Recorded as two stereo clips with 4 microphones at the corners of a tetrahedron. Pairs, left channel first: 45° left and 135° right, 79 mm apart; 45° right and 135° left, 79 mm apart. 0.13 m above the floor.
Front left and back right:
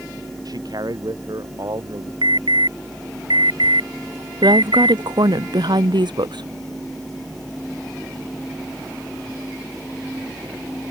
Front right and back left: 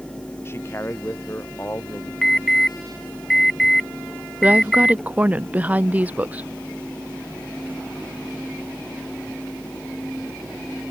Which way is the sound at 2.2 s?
130° right.